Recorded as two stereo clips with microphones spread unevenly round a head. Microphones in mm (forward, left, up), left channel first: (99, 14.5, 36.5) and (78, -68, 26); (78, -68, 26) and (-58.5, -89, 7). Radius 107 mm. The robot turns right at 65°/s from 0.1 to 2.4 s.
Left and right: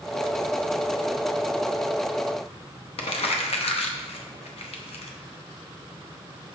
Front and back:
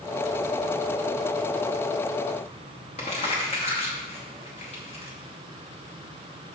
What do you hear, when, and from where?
3.0 s crumpling: 70° left, 0.7 m